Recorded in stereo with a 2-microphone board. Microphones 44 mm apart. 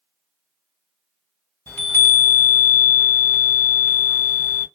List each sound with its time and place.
1.7 s a chime: 75° left (ahead or behind), 2.5 m